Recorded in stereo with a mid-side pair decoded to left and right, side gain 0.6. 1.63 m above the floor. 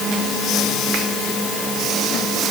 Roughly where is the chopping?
No chopping in this recording.